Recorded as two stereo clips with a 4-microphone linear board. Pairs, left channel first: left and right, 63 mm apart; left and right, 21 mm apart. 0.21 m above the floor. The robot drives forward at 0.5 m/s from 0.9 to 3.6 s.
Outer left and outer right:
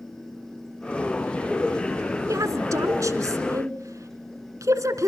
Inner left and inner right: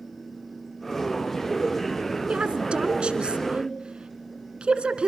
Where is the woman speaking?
60° right (ahead or behind), 2.5 m.